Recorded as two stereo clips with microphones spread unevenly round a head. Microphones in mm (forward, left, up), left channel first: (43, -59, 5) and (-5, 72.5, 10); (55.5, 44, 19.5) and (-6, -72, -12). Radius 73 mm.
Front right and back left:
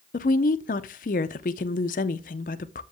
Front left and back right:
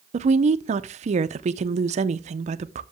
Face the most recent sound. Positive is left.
turn(degrees=-85)